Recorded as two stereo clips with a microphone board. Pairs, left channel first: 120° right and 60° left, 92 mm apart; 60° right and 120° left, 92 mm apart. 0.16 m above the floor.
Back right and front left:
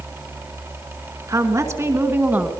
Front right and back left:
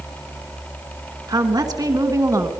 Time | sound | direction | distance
1.3 | a woman speaking | 100° left | 2.5 m